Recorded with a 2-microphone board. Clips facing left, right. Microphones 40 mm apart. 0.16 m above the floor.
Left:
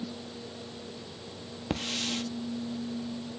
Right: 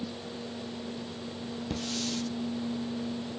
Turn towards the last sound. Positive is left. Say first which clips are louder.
# left 3 dB
turn(degrees=50)  # may be behind; listen again after turning